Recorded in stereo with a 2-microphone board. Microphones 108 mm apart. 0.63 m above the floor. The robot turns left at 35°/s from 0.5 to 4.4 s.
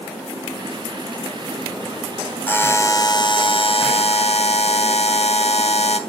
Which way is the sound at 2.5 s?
165° left.